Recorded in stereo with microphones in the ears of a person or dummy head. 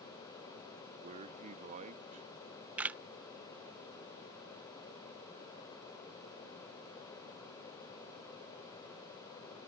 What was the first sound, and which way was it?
A man speaking, 35° right (ahead or behind).